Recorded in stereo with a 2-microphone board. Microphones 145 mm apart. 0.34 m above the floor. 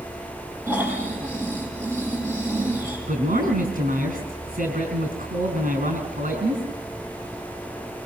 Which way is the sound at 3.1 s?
70° right (ahead or behind).